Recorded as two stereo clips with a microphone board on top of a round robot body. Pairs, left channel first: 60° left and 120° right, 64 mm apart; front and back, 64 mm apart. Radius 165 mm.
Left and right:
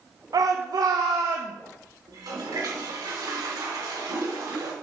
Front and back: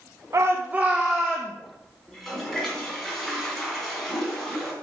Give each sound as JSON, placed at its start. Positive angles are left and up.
{"t": 0.3, "sound": "a shout", "azimuth_deg": -140, "distance_m": 1.0}
{"t": 2.1, "sound": "a toilet flushing", "azimuth_deg": -85, "distance_m": 2.5}